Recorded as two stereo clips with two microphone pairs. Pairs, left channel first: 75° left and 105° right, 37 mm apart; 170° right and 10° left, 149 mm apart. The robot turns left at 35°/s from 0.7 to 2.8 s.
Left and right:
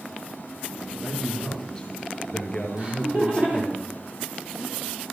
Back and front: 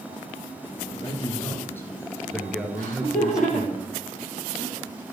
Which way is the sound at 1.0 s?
150° left.